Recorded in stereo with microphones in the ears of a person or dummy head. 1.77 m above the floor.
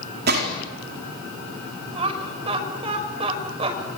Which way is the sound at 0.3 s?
55° right (ahead or behind).